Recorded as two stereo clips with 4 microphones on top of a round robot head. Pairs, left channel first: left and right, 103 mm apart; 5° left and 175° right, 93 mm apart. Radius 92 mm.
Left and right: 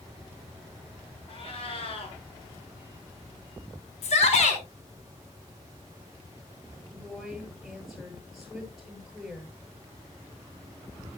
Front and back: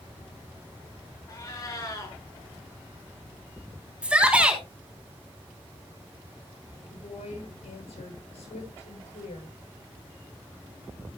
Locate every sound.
1.3 s a cat meowing: 60° left, 5 m
4.0 s a shout: 110° left, 3.5 m
6.9 s a woman speaking: straight ahead, 10 m